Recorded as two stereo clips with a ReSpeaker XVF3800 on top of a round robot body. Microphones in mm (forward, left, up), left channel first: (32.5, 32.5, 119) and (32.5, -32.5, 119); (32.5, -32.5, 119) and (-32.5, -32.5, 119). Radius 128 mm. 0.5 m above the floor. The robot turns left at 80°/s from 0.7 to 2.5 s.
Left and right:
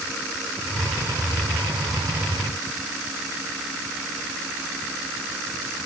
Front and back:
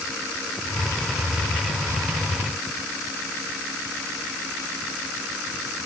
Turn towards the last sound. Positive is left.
No sound to turn to.